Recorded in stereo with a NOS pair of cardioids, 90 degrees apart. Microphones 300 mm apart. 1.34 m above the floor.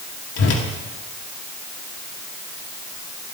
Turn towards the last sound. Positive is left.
turn(degrees=55)